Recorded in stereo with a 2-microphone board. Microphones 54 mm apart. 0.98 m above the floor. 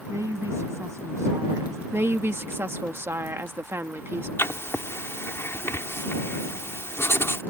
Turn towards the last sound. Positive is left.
turn(degrees=55)  # may be behind; listen again after turning